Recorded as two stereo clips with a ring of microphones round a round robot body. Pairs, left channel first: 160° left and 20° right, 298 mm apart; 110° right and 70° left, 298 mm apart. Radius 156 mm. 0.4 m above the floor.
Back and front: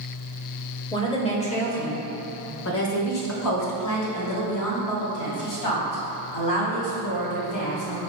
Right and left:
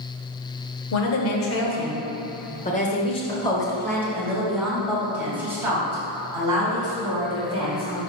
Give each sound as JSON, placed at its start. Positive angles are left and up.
{"t": 0.9, "sound": "a woman speaking", "azimuth_deg": -130, "distance_m": 1.5}